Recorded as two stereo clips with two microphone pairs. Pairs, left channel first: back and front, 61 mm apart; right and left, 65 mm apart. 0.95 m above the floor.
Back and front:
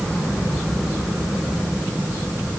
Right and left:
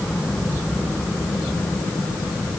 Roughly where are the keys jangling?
No keys jangling in this recording.